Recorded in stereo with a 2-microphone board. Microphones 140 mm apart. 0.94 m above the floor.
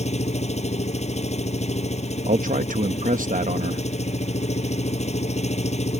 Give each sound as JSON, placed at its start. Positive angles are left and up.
{"t": 0.0, "sound": "an engine running", "side_deg": 50}
{"t": 2.3, "sound": "a man speaking", "side_deg": -75}